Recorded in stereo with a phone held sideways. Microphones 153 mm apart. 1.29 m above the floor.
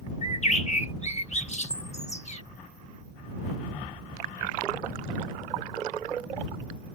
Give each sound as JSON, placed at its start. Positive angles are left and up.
{"t": 0.2, "sound": "a bird", "side_deg": 45}